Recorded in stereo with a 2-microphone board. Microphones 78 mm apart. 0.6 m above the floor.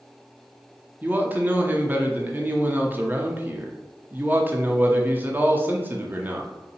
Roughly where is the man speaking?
Right.